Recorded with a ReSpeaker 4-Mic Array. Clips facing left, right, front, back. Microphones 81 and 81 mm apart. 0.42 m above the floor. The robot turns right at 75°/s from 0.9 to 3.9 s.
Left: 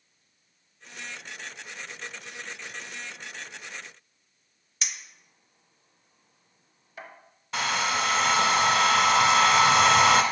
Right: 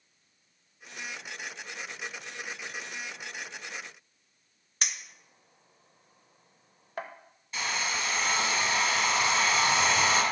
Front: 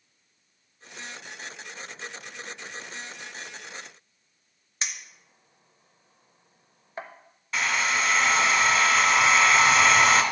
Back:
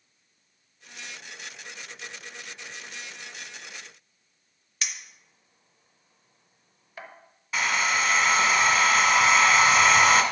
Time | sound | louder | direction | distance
4.8 | a clink | right 2 dB, front 1 dB | 55° right | 0.7 m
7.5 | a hair dryer | left 6 dB, back 1 dB | 95° left | 0.8 m